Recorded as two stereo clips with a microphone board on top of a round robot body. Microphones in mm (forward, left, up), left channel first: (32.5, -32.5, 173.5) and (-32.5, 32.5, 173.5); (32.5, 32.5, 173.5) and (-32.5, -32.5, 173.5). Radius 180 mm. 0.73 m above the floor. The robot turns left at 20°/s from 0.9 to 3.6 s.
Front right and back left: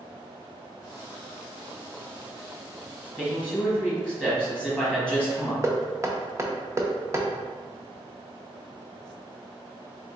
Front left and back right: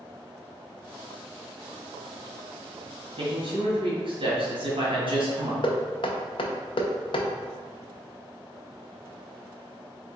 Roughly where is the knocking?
Left.